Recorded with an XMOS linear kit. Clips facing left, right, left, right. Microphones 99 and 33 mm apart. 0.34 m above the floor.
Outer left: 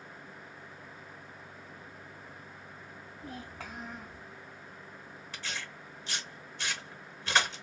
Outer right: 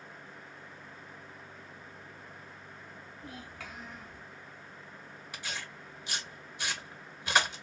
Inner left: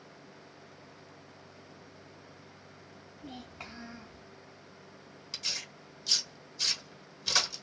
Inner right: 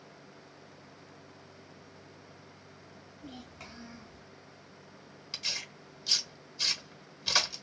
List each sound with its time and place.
3.2 s a child speaking: 30° left (ahead or behind), 1.5 m
5.3 s tearing paper: 10° right (ahead or behind), 0.9 m